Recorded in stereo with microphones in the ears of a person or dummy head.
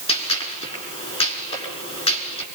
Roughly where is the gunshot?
Left.